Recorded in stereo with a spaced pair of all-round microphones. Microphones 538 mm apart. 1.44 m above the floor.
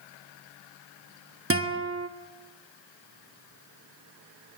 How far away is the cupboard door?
No cupboard door in this recording.